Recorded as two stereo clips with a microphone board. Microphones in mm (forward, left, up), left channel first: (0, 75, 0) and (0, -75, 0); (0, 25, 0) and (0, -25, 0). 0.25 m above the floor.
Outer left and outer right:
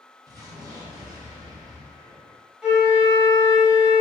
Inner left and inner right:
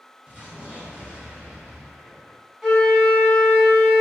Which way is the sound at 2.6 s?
5° right (ahead or behind).